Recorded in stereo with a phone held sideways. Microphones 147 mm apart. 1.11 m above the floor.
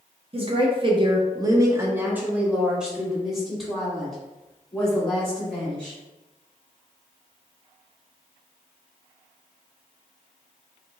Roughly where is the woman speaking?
Right.